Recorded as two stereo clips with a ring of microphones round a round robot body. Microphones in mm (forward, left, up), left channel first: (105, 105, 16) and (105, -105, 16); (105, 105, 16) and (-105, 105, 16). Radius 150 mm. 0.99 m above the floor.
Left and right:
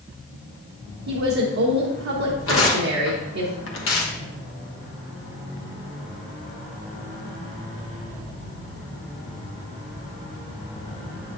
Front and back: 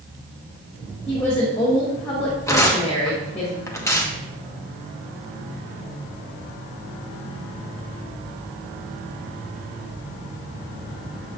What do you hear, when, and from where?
1.1 s a woman speaking: 80° right, 1.0 m
2.5 s tearing paper: 75° left, 1.3 m